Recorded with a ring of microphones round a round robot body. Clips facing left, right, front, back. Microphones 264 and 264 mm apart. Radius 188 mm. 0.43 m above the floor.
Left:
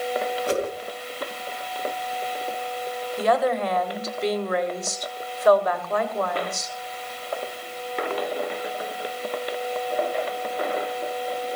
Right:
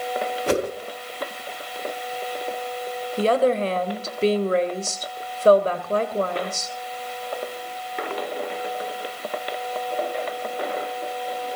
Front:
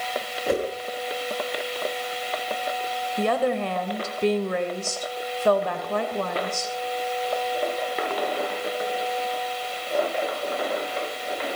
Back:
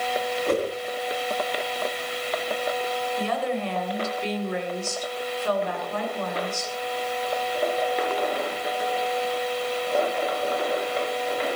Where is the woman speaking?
35° right, 2.5 m.